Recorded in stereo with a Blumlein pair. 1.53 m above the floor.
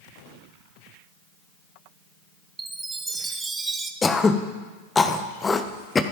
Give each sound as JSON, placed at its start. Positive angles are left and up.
{"t": 2.6, "sound": "a chime", "azimuth_deg": -15, "distance_m": 0.7}
{"t": 4.0, "sound": "throat clearing", "azimuth_deg": 15, "distance_m": 0.6}